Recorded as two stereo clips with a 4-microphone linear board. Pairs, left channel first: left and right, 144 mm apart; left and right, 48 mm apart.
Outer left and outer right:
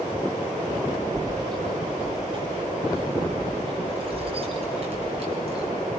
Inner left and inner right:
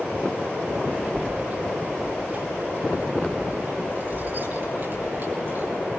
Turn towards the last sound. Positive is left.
turn(degrees=-45)  # may be behind; listen again after turning